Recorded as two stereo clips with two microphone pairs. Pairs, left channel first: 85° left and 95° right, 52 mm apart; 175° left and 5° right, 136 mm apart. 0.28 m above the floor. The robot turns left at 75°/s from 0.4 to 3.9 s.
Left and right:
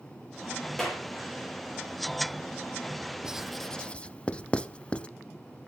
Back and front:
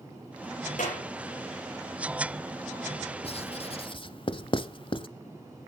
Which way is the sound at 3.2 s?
165° right.